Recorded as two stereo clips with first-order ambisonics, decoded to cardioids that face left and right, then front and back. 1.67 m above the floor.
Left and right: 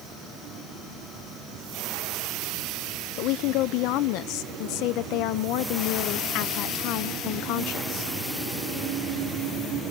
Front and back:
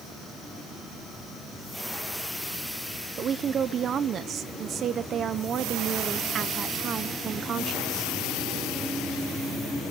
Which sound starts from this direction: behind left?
A woman speaking, at 3.2 s.